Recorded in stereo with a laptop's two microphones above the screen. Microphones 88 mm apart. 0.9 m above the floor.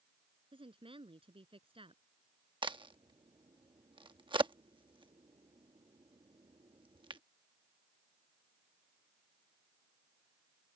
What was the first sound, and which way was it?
A woman speaking, 90° right.